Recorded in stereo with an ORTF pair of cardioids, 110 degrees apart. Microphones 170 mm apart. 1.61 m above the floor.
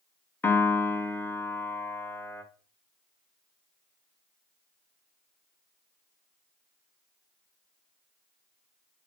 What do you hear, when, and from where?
0.4 s a piano: 15° left, 1.1 m